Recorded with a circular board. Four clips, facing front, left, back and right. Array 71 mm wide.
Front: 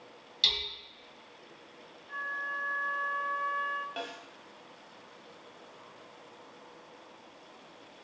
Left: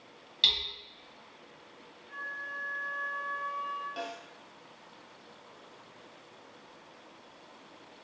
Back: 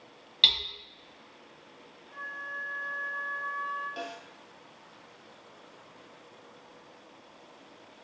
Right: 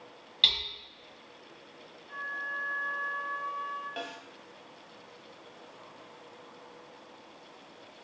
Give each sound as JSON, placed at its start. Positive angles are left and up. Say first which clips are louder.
{"t": 0.4, "sound": "hammering", "louder": "right 1 dB, back 4 dB", "azimuth_deg": -160, "distance_m": 0.6}
{"t": 2.1, "sound": "a flute", "louder": "right 3 dB, front 3 dB", "azimuth_deg": -10, "distance_m": 0.6}
{"t": 4.0, "sound": "a snare drum", "louder": "left 1 dB, back 1 dB", "azimuth_deg": -35, "distance_m": 0.7}